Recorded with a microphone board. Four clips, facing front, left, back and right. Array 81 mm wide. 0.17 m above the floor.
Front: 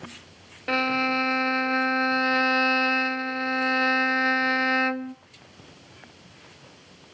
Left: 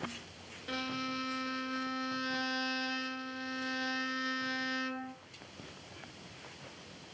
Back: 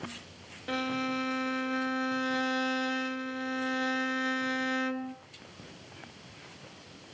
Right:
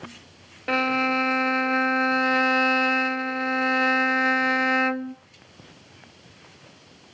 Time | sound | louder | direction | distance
0.7 | a violin | right 15 dB, front 7 dB | 60° right | 0.6 m